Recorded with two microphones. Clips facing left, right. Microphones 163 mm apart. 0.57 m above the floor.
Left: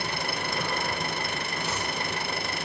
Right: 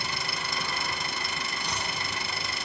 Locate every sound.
0.0 s an engine running: 55° left (ahead or behind), 1.2 m
1.6 s chopping: 5° left (ahead or behind), 4.5 m